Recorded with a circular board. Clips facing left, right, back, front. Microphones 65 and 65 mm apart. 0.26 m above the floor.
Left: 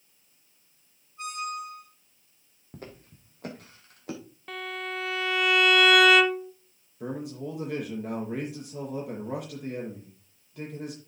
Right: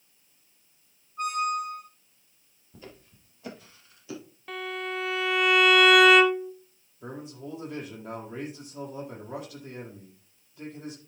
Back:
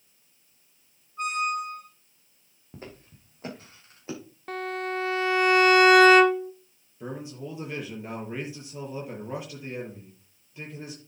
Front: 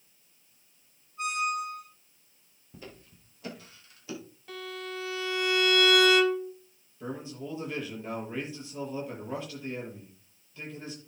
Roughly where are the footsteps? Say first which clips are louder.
Left 3 dB, back 3 dB; behind left.